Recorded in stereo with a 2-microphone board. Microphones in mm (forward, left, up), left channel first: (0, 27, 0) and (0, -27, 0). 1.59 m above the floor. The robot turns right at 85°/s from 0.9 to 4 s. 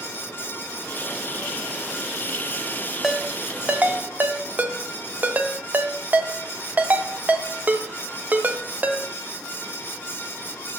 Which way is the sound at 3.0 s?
Centre (ahead or behind).